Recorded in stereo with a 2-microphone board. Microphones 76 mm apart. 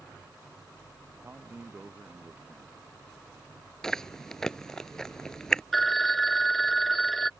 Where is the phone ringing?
Centre (ahead or behind).